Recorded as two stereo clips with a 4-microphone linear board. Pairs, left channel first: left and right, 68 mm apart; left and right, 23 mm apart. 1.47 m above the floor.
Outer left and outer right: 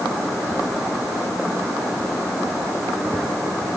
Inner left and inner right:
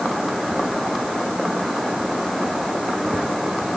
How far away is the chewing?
No chewing in this recording.